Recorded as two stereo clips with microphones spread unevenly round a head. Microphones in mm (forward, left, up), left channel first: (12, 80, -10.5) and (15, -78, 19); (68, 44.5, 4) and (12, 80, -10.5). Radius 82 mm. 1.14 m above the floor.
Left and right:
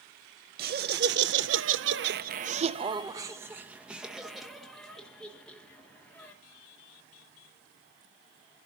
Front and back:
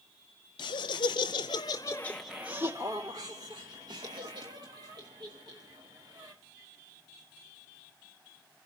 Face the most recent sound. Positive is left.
turn(degrees=170)